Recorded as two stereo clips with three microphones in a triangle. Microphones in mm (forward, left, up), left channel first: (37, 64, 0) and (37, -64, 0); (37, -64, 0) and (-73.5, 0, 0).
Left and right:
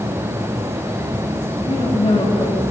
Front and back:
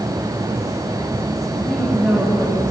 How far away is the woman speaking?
About 3.5 m.